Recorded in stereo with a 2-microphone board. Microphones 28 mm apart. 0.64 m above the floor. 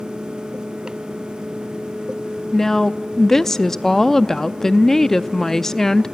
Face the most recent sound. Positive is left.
turn(degrees=15)  # may be behind; listen again after turning